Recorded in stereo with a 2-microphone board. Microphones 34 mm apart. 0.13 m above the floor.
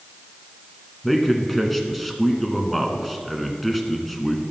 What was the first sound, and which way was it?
A man speaking, 5° left (ahead or behind).